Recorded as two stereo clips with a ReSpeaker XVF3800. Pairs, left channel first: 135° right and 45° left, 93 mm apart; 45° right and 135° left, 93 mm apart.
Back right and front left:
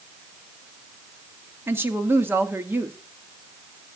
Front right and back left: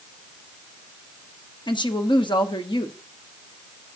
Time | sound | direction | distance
1.7 | a woman speaking | 20° right | 1.3 m